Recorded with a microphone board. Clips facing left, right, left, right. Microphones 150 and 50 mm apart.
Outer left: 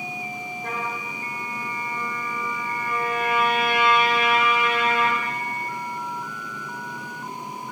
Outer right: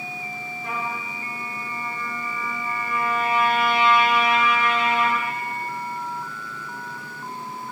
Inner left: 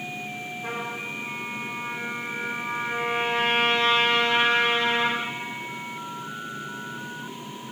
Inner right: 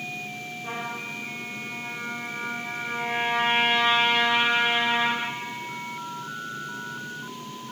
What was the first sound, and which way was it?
A trumpet, 50° left (ahead or behind).